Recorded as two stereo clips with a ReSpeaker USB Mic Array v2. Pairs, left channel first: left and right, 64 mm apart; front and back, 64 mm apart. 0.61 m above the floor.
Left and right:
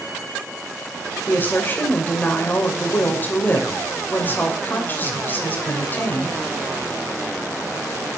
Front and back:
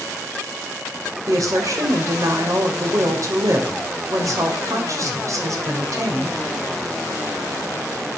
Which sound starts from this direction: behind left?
A woman speaking, at 1.3 s.